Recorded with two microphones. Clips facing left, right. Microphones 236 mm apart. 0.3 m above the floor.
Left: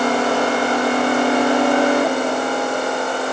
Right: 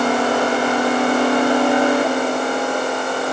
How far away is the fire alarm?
No fire alarm in this recording.